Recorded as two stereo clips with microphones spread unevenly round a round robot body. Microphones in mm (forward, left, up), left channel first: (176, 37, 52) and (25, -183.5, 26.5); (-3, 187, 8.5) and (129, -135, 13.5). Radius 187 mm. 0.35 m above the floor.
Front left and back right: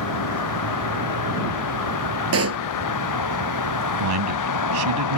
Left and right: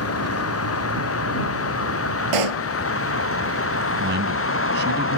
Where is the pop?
90° right.